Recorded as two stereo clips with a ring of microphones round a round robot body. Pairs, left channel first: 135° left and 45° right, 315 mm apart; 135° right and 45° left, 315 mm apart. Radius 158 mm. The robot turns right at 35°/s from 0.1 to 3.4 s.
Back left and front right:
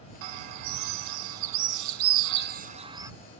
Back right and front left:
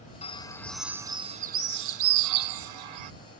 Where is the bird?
65° right; by 3.1 s 35° left.